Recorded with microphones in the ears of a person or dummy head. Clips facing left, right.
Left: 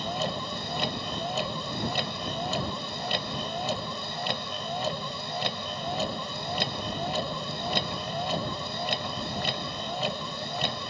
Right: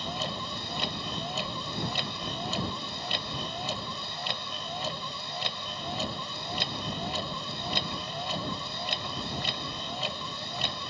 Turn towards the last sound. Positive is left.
turn(degrees=45)  # may be behind; listen again after turning